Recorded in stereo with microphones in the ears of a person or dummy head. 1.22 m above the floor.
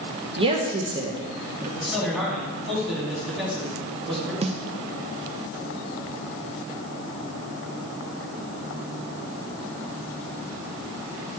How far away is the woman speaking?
About 1.1 m.